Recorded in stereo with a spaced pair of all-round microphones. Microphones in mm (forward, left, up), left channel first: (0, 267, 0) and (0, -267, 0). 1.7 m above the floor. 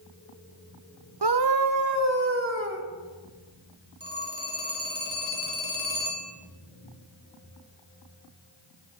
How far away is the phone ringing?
About 2 m.